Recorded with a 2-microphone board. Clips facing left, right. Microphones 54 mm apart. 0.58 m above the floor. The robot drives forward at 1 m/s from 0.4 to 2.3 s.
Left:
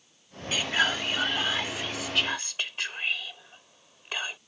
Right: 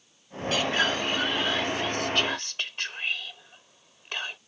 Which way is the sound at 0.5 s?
10° left (ahead or behind).